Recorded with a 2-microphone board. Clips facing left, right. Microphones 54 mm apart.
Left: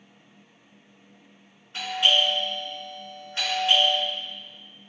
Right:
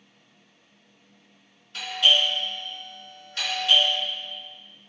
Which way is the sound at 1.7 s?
25° left (ahead or behind).